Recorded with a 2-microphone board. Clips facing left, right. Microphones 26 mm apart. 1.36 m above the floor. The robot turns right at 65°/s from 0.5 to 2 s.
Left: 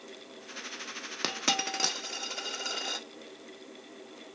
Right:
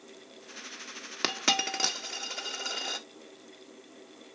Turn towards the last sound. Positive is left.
turn(degrees=0)  # may be behind; listen again after turning